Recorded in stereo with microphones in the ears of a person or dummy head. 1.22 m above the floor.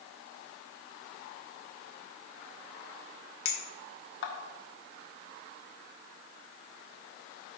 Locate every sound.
3.5 s a clink: 65° left (ahead or behind), 1.2 m